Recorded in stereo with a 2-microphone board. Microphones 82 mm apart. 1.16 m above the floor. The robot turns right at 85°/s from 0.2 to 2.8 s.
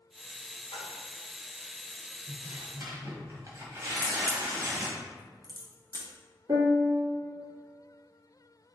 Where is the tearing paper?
85° right, 1.4 m; by 5.0 s 40° right, 1.4 m.